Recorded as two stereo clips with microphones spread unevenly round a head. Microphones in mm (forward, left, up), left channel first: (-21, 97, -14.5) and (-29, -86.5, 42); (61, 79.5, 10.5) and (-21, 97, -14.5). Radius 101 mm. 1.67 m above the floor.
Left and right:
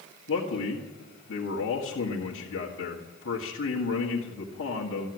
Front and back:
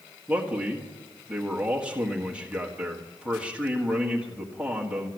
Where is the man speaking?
85° left, 1.7 m.